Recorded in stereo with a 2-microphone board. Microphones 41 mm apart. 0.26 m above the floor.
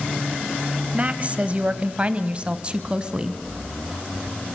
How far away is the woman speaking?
About 1.0 m.